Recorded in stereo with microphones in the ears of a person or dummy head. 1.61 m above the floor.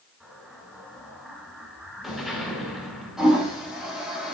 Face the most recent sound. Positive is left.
turn(degrees=-5)  # may be behind; listen again after turning